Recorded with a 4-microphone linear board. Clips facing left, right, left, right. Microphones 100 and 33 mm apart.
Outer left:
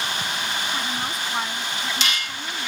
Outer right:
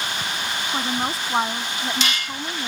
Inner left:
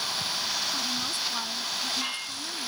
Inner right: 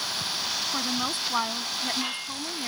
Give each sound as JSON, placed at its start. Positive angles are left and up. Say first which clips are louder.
{"t": 0.7, "sound": "a woman speaking", "louder": "outer right 3 dB, inner right 2 dB", "side_deg": -35}